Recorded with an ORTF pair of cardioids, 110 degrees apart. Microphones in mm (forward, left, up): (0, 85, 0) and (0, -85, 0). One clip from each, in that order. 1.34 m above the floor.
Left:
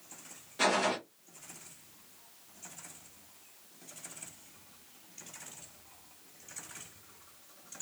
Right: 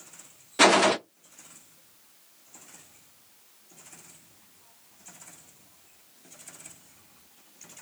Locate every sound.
0.6 s a gunshot: 60° right, 0.5 m